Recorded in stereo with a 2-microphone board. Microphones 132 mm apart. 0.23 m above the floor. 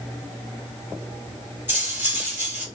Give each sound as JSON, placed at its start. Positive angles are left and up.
{"t": 1.7, "sound": "cutlery clinking", "side_deg": -15, "distance_m": 2.0}